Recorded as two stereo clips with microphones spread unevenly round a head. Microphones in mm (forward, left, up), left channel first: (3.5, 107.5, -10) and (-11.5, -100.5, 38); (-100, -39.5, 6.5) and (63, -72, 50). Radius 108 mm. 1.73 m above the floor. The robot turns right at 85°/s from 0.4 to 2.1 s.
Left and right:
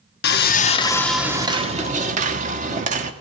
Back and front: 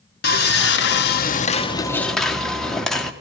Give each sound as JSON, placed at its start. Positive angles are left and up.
{"t": 0.2, "sound": "sawing", "azimuth_deg": 125, "distance_m": 0.9}